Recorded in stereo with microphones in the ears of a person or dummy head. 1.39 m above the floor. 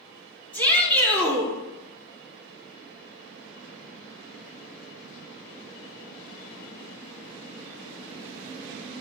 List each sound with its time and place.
0.5 s a shout: 15° left (ahead or behind), 3 m